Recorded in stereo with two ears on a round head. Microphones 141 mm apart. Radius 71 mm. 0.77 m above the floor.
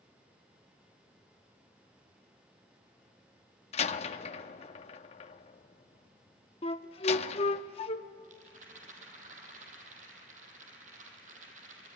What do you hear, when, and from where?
3.7 s a door slam: 40° left (ahead or behind), 0.8 m
6.6 s a flute: 35° left (ahead or behind), 0.7 m
8.2 s a rattle: 50° right (ahead or behind), 4 m